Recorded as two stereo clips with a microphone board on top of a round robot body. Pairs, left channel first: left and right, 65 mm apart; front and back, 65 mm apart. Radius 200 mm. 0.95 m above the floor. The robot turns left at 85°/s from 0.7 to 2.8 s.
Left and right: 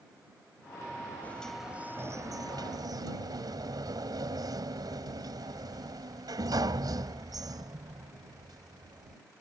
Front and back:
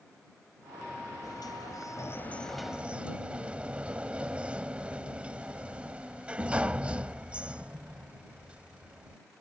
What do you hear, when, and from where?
1.2 s a sliding door: 25° left; by 9.2 s 110° right